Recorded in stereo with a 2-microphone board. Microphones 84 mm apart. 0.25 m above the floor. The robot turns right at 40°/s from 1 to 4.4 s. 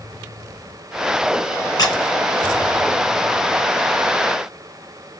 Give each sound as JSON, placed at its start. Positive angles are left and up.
{"t": 1.8, "sound": "a squeak", "side_deg": 50, "distance_m": 1.4}